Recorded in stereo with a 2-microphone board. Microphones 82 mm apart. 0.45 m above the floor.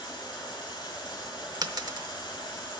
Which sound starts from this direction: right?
A dropped coin, at 1.6 s.